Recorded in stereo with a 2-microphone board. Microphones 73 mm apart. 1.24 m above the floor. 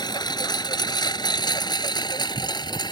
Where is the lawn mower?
75° left (ahead or behind); by 2.9 s 85° left.